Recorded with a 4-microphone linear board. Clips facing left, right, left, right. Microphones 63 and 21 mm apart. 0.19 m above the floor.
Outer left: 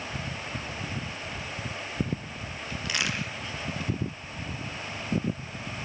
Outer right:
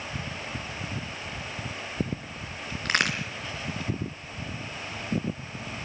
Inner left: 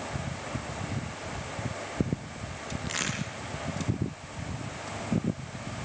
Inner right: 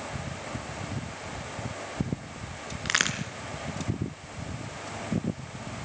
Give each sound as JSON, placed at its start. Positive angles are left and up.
{"t": 2.9, "sound": "a crack", "side_deg": -50, "distance_m": 3.0}